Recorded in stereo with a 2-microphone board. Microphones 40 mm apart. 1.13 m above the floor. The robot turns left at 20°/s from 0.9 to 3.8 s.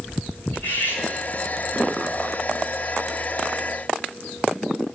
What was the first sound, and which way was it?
Cutlery clinking, 55° left (ahead or behind).